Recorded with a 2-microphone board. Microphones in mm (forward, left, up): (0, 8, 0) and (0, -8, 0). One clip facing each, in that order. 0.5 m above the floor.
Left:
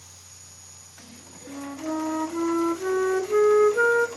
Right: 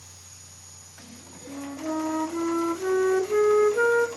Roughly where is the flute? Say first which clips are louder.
Even; centre.